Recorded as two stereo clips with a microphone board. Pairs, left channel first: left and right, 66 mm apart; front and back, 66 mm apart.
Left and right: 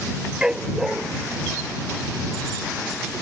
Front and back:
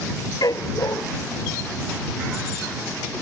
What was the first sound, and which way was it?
A dog barking, 15° right.